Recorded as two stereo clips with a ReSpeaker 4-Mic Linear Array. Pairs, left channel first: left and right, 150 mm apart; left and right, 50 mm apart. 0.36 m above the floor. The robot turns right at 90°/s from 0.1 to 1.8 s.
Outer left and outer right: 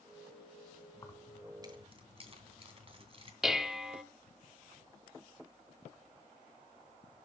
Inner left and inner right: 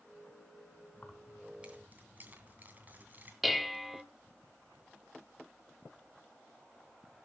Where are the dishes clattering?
Centre (ahead or behind), 0.8 m.